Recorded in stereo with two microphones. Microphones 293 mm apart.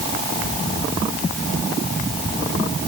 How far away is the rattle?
No rattle in this recording.